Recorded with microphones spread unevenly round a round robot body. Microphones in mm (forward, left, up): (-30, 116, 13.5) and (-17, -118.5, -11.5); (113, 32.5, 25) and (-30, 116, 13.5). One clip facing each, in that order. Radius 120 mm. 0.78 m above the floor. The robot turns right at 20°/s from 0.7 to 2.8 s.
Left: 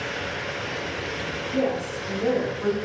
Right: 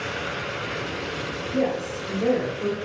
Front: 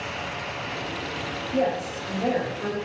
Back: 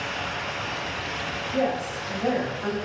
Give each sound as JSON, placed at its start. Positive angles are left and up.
{"t": 1.5, "sound": "a woman speaking", "azimuth_deg": 5, "distance_m": 1.8}